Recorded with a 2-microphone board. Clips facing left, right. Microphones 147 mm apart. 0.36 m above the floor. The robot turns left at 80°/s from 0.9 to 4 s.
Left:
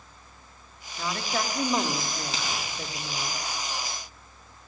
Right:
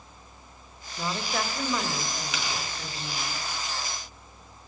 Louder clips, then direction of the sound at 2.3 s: Even; 35° left (ahead or behind).